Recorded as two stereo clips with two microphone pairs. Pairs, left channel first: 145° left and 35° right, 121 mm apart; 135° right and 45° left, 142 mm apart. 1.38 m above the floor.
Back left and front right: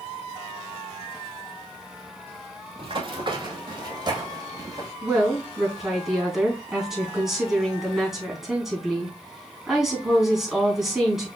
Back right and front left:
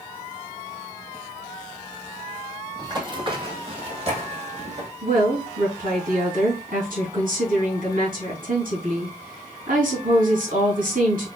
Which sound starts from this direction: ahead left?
A woman speaking, at 5.0 s.